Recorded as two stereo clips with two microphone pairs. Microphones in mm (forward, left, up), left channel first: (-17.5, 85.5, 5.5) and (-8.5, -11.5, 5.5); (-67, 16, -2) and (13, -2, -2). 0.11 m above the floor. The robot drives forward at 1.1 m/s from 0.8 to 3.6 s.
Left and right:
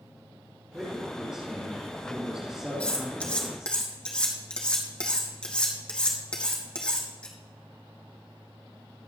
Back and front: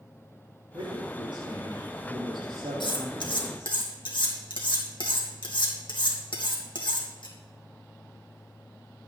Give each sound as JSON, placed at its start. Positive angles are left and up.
{"t": 0.7, "sound": "a man speaking", "azimuth_deg": 0, "distance_m": 5.5}
{"t": 2.8, "sound": "cutlery clinking", "azimuth_deg": 170, "distance_m": 2.5}